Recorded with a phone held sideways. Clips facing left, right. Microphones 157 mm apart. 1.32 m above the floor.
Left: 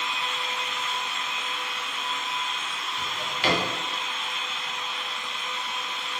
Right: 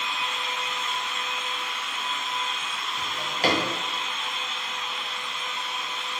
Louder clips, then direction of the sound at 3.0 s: Right 3 dB; 40° right (ahead or behind).